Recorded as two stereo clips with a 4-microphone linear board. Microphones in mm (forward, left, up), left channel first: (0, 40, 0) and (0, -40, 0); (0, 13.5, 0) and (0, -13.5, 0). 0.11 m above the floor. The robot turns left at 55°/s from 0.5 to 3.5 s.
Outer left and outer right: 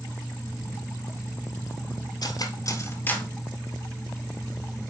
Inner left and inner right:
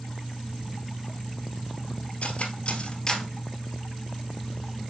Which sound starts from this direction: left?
Cutlery clinking, at 2.2 s.